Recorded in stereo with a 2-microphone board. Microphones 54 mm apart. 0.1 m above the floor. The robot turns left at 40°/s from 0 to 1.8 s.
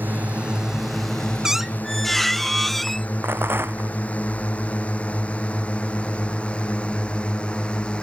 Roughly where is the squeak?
Centre.